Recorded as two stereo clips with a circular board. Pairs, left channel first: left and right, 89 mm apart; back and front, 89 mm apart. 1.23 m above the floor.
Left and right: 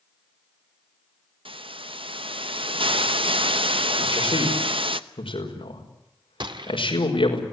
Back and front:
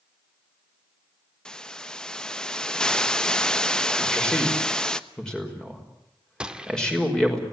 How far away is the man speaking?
About 5.5 m.